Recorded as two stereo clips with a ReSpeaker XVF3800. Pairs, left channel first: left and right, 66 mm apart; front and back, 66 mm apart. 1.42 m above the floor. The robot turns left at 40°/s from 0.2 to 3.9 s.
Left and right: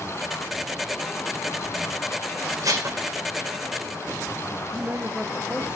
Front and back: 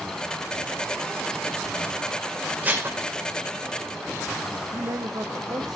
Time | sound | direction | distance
2.6 | dishes clattering | 115° right | 3.5 m
4.7 | a man speaking | 165° right | 1.5 m